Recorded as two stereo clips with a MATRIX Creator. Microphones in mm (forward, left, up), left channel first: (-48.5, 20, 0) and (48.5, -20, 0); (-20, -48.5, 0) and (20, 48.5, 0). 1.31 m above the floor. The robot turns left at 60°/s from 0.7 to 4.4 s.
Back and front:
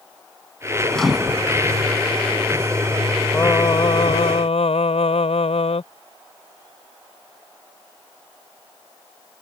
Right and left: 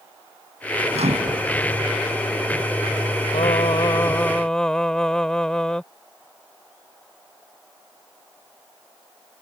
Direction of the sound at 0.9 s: 75° left.